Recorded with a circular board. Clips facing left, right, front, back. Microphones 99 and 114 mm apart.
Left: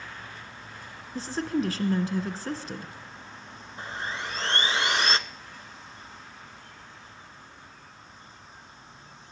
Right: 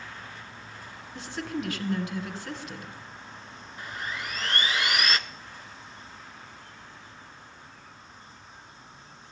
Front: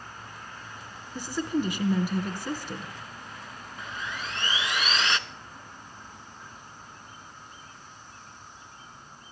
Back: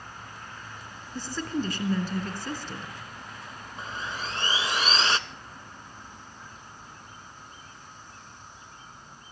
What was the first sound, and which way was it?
A woman speaking, 65° left.